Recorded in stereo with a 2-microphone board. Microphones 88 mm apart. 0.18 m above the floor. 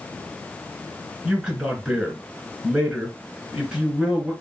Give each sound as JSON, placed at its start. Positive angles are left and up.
{"t": 1.2, "sound": "a man speaking", "side_deg": -10, "distance_m": 3.0}